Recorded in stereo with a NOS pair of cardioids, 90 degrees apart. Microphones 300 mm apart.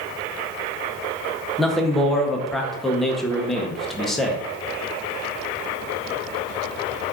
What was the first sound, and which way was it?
A man speaking, straight ahead.